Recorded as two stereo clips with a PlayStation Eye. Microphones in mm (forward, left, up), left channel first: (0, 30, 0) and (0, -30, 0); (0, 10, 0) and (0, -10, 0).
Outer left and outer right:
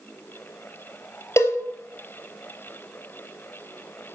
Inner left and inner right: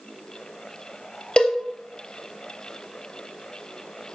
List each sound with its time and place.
1.4 s a cowbell: 50° left (ahead or behind), 2.0 m